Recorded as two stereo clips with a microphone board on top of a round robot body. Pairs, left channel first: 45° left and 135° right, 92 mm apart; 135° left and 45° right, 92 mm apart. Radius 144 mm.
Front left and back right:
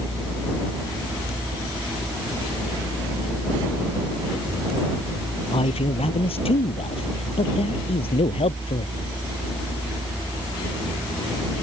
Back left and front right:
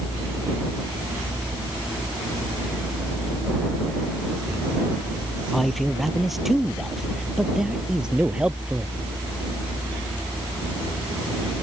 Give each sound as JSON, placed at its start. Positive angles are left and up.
{"t": 5.5, "sound": "a man speaking", "azimuth_deg": 45}